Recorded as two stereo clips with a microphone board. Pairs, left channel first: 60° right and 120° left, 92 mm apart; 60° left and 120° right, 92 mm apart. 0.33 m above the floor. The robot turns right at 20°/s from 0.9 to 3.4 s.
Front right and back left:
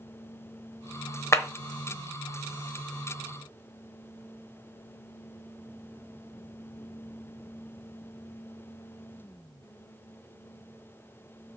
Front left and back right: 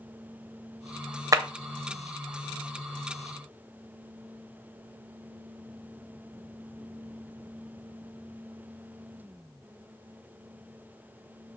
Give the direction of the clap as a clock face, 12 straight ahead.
3 o'clock.